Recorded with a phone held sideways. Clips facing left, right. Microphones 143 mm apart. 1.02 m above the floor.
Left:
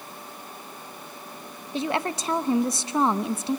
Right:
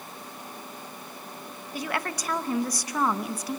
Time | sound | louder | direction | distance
1.7 | a woman speaking | left 5 dB | 25° left (ahead or behind) | 0.9 m